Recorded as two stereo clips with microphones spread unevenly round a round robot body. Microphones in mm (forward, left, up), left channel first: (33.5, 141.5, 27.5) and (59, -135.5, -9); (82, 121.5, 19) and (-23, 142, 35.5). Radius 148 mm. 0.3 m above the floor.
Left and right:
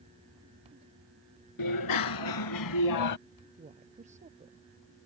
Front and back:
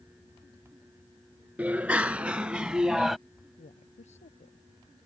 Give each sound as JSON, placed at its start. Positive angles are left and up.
{"t": 1.6, "sound": "a bicycle bell", "azimuth_deg": 95}
{"t": 3.6, "sound": "a woman speaking", "azimuth_deg": -20}